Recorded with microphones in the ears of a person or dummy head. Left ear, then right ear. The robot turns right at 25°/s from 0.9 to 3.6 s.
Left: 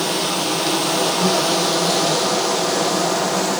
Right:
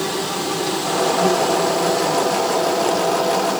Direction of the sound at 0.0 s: 20° left.